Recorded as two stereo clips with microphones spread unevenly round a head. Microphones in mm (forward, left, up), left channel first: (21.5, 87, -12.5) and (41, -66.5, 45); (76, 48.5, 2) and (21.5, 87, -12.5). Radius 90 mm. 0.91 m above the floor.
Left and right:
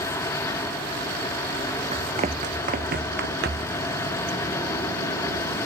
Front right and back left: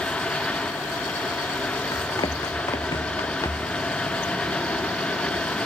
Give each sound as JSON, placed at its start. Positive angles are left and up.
{"t": 1.9, "sound": "running footsteps", "azimuth_deg": -40}